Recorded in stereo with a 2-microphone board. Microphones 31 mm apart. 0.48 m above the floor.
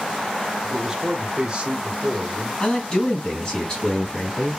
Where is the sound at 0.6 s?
15° right (ahead or behind), 1.0 m; by 2.5 s 40° right (ahead or behind), 1.5 m.